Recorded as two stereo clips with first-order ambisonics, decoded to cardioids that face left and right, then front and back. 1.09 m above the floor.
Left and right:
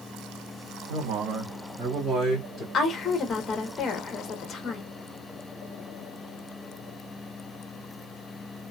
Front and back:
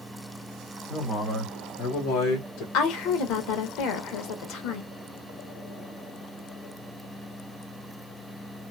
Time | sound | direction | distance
0.9 | a man speaking | 85° right | 1.3 m
2.7 | a woman speaking | 25° left | 1.0 m